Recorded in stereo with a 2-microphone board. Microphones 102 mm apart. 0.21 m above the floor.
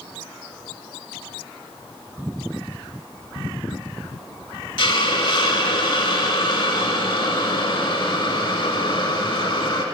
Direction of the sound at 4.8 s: 55° left (ahead or behind).